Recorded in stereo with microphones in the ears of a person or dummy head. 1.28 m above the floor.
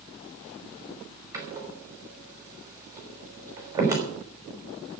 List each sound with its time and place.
1.3 s a door slam: 15° right (ahead or behind), 5 m